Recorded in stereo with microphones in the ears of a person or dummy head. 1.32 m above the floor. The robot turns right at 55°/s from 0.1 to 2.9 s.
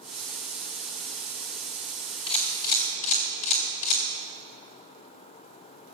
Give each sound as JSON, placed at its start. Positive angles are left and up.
{"t": 2.3, "sound": "a camera shutter", "side_deg": 30, "distance_m": 2.0}